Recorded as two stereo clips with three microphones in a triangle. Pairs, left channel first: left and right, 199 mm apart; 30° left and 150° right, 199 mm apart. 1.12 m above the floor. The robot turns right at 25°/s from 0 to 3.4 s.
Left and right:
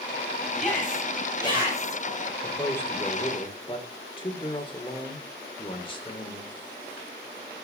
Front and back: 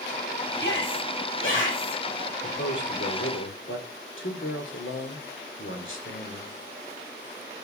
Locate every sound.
0.6 s a shout: straight ahead, 8 m; by 2.0 s 40° left, 8 m
2.4 s a man speaking: straight ahead, 3 m; by 6.6 s 25° left, 3 m